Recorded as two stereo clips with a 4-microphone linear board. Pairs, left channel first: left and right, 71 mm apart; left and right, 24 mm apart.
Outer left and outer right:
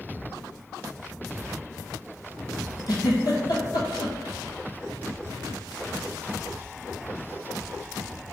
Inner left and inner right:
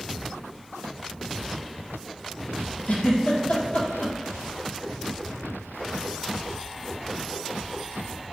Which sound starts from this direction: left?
A giggle, at 2.9 s.